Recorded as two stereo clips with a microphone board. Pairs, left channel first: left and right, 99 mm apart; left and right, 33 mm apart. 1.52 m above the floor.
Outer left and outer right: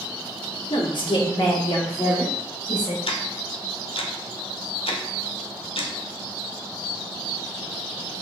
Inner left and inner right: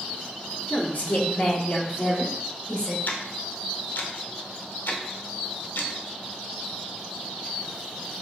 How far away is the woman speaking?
About 1.0 m.